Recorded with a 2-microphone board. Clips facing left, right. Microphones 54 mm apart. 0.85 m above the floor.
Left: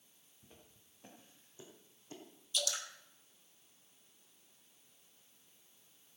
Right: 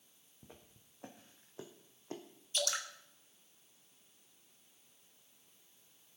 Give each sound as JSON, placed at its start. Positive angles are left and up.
{"t": 0.4, "sound": "footsteps", "side_deg": -75, "distance_m": 3.5}
{"t": 2.5, "sound": "dripping", "side_deg": -45, "distance_m": 1.7}